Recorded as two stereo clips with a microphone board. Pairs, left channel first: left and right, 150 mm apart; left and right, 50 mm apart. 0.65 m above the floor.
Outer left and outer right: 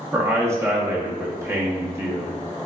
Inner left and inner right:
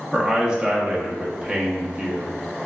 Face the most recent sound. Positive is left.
turn(degrees=-20)  # may be behind; listen again after turning